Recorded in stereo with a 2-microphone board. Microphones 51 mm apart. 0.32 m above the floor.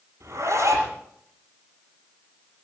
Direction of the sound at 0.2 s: 75° right (ahead or behind).